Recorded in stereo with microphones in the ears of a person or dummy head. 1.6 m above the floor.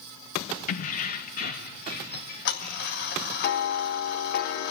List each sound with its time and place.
0.7 s keys jangling: 35° left (ahead or behind), 0.8 m; by 3.1 s 50° left (ahead or behind), 4 m
2.1 s ticking: 50° left (ahead or behind), 0.9 m